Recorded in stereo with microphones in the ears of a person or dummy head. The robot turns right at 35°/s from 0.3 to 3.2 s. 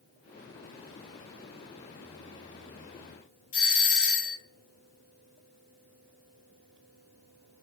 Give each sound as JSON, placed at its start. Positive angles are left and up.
{"t": 3.5, "sound": "a doorbell", "side_deg": 40, "distance_m": 0.9}